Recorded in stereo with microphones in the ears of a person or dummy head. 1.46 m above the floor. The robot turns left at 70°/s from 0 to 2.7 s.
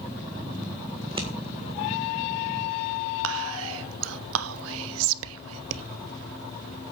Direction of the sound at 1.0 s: 40° right (ahead or behind).